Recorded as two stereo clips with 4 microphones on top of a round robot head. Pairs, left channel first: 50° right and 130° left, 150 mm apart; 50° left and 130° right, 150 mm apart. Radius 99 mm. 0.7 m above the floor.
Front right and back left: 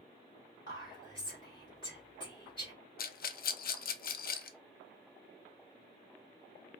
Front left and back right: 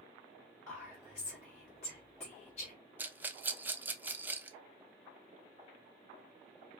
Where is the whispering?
10° left, 2.5 m.